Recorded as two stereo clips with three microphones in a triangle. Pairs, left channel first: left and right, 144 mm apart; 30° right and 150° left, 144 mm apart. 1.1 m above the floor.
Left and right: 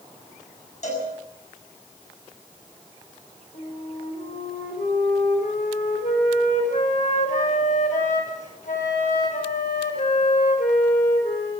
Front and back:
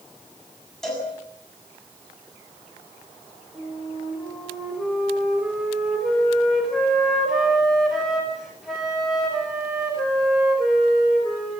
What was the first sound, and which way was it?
A cowbell, 55° left.